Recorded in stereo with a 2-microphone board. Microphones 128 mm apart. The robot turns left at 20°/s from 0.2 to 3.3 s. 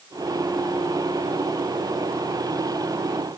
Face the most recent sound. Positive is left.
No sound to turn to.